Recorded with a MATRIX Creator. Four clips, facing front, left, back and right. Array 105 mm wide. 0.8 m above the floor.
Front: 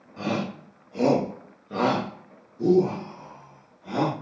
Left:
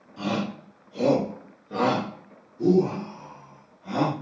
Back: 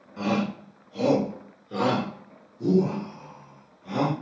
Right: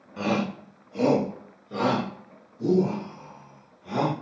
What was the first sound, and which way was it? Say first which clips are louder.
A shout: right 2 dB, back 2 dB; 90° right.